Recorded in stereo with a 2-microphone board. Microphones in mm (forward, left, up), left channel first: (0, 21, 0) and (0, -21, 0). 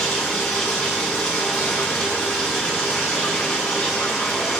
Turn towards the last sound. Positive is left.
turn(degrees=5)  # may be behind; listen again after turning